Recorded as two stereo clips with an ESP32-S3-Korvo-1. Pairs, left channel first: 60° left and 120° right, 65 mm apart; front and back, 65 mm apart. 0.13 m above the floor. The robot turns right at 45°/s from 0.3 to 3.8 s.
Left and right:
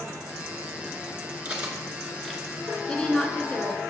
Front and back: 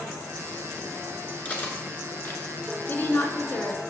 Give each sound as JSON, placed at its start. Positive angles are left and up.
{"t": 1.4, "sound": "cutlery clinking", "azimuth_deg": -60, "distance_m": 1.0}
{"t": 2.9, "sound": "a woman speaking", "azimuth_deg": -15, "distance_m": 1.2}